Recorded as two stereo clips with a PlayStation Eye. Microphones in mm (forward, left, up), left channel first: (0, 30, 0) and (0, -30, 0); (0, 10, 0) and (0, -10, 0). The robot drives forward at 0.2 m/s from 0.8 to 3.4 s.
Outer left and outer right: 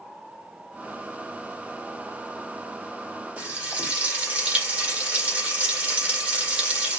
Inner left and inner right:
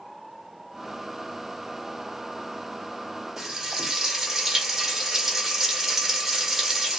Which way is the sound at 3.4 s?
25° right (ahead or behind).